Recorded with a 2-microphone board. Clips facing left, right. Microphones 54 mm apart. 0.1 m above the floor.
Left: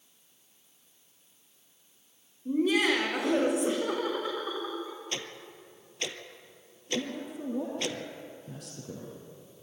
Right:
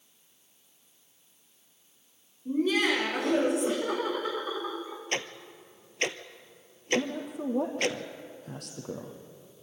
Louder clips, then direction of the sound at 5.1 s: Right 5 dB; 50° right (ahead or behind).